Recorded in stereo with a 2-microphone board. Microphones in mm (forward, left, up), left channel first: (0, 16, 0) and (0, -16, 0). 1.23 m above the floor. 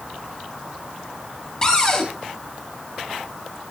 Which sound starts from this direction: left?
A cupboard door, at 1.6 s.